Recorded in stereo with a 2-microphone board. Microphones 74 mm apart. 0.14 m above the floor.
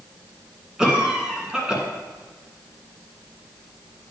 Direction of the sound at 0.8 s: 10° right (ahead or behind).